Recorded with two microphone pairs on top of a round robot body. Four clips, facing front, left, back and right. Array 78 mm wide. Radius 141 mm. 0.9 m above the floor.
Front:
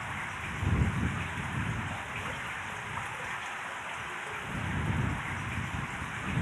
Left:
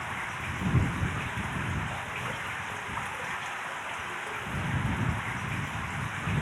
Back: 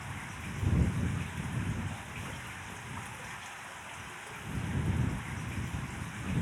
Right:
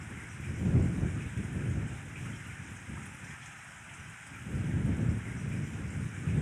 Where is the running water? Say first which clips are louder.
Left 11 dB, front 6 dB; 65° left.